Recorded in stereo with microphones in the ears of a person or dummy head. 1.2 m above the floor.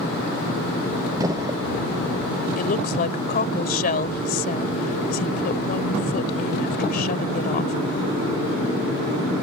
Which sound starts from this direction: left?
A woman speaking, at 2.6 s.